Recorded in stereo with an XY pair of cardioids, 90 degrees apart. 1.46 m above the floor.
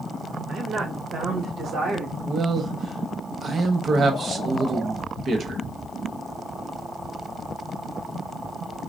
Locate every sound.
0.5 s a woman speaking: 70° right, 1.0 m; by 2.1 s 80° right, 2.0 m
2.2 s a man speaking: 55° right, 1.0 m